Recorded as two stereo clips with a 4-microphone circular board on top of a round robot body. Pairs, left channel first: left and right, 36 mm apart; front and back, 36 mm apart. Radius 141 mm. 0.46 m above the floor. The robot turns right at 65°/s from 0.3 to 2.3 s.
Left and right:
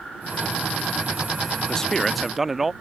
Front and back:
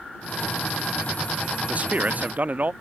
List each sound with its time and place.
1.7 s a man speaking: 150° left; by 2.7 s 170° right